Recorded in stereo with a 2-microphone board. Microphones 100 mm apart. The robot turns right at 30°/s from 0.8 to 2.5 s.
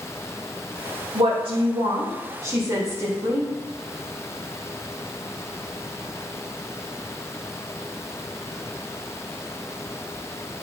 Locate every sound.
1.1 s a woman speaking: 70° right, 2.5 m; by 3.5 s 30° right, 2.5 m